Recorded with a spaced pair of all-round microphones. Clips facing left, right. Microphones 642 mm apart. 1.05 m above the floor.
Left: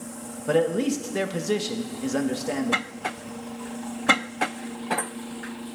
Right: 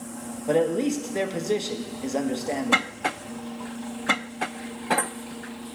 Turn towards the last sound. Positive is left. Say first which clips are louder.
# even
turn(degrees=40)  # may be behind; listen again after turning